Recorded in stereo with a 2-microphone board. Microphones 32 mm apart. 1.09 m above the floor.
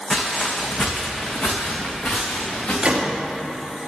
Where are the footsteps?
25° left (ahead or behind), 3 m; by 2.7 s 70° left (ahead or behind), 5 m.